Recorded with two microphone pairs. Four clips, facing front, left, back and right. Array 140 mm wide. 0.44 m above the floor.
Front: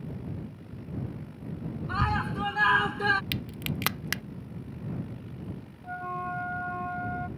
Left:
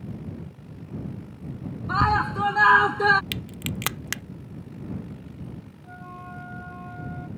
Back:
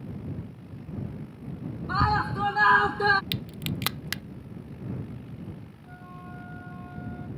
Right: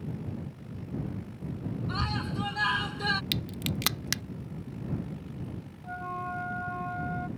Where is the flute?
25° right.